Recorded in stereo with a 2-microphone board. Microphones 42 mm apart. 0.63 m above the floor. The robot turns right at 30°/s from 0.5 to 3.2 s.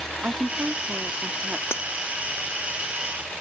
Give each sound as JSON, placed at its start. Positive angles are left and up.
{"t": 0.2, "sound": "a woman speaking", "azimuth_deg": -75}
{"t": 1.7, "sound": "breaking glass", "side_deg": 75}